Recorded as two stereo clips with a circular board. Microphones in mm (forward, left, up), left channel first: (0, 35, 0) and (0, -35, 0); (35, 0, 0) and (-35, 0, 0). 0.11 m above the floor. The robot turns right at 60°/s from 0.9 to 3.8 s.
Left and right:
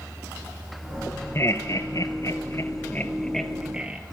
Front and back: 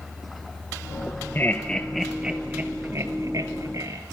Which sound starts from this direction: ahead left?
Laughter, at 1.4 s.